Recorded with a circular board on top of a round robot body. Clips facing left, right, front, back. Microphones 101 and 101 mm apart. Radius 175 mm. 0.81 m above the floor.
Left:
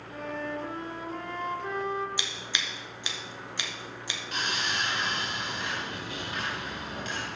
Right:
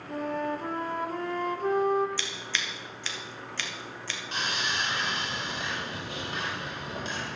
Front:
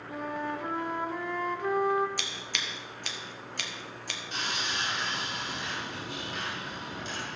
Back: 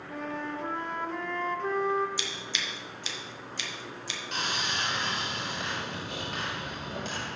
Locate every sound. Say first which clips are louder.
0.1 s a flute: right 4 dB, front 1 dB; 75° right, 1.0 m
2.2 s scissors: right 1 dB, back 1 dB; 20° left, 1.7 m
4.3 s sawing: even, back 2 dB; 150° right, 5 m